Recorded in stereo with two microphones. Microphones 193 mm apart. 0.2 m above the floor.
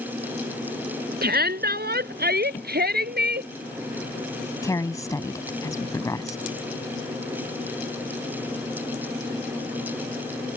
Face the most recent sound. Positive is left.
turn(degrees=15)  # may be behind; listen again after turning